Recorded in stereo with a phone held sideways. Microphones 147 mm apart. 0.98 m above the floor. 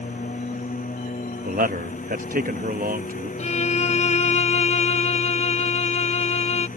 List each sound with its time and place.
0.0 s a lawn mower: 65° left (ahead or behind)
1.4 s a man speaking: 70° right (ahead or behind)
3.4 s a violin: 50° left (ahead or behind)